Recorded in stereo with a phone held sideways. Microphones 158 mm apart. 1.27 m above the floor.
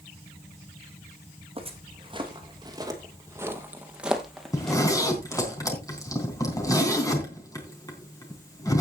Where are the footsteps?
35° right (ahead or behind), 3 m; by 5.5 s 15° left (ahead or behind), 2 m.